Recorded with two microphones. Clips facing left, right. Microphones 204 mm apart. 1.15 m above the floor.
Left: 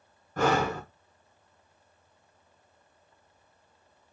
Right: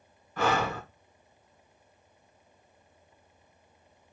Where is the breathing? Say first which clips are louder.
Left 2 dB; 45° left (ahead or behind), 1.4 m.